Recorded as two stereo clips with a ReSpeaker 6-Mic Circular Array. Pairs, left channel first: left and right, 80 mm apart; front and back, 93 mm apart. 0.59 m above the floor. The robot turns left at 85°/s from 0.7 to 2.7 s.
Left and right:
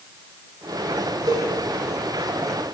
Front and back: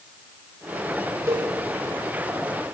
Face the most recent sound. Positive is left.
turn(degrees=115)